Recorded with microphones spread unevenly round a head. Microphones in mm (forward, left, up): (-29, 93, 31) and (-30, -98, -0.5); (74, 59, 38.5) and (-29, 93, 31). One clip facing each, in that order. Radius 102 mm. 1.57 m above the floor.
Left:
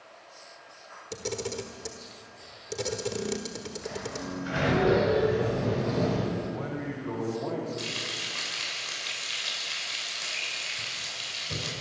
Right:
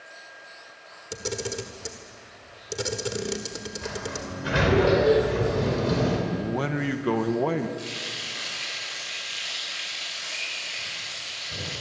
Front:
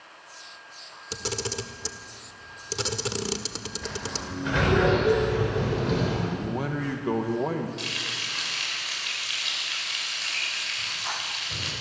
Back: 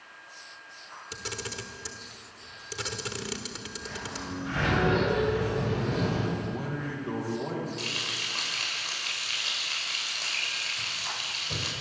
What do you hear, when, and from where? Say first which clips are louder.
1.1 s a camera shutter: right 2 dB, front 7 dB; 5° left, 1.4 m
3.8 s a sliding door: right 2 dB, front 3 dB; 60° right, 5 m
6.3 s a man speaking: right 5 dB, front 3 dB; 75° right, 1.8 m
7.8 s frying: right 1 dB, front 1 dB; 115° left, 8.5 m